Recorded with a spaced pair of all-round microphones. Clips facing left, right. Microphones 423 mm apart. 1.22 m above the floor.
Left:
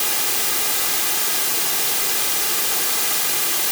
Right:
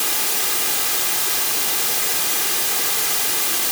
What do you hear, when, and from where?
Only background noise.